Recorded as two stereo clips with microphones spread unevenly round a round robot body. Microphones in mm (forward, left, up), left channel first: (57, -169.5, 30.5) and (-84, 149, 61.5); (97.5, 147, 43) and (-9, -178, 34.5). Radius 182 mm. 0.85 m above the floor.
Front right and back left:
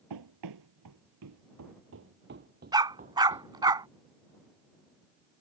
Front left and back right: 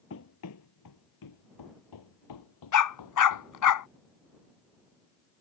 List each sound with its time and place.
0.1 s running footsteps: 120° left; by 3.7 s 40° left
2.7 s a dog barking: 35° left